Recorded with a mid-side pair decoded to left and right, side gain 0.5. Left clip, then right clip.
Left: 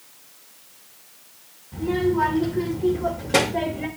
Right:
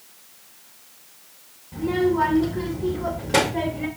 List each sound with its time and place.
1.7 s a child speaking: 20° right, 4.5 m; by 3.9 s 5° left, 5 m